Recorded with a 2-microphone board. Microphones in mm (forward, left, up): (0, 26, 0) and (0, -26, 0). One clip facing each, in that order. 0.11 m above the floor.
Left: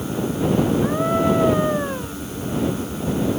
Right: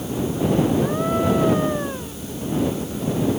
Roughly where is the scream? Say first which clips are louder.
Left 1 dB; centre.